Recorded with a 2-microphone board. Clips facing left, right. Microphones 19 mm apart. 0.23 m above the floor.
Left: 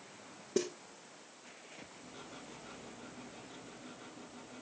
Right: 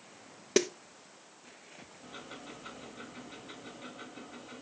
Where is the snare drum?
75° right (ahead or behind), 0.9 m.